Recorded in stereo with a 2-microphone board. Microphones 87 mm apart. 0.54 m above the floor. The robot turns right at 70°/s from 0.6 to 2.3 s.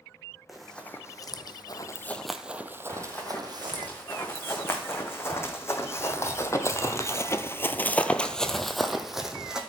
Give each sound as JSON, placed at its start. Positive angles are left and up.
{"t": 0.5, "sound": "running footsteps", "side_deg": 0, "distance_m": 1.2}
{"t": 2.9, "sound": "running footsteps", "side_deg": 25, "distance_m": 3.0}